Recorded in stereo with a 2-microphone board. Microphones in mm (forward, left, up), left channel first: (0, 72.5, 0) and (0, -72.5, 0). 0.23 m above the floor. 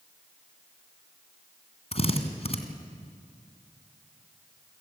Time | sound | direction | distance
1.9 | a drill | 45° left (ahead or behind) | 2 m